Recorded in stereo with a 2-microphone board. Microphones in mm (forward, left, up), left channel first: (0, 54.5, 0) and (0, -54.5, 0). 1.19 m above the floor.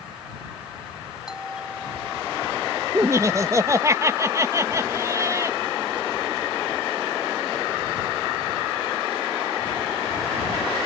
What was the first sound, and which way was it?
A doorbell, 5° right (ahead or behind).